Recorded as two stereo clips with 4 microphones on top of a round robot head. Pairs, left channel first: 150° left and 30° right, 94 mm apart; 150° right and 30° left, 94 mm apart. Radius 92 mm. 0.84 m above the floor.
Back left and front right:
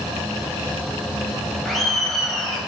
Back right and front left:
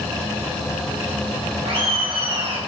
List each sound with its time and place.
1.6 s laughter: 60° left, 5 m